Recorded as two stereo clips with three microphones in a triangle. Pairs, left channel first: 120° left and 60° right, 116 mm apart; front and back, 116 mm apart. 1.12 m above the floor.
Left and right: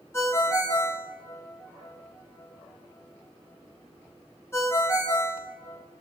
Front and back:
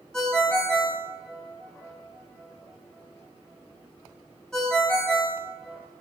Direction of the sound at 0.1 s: 80° left.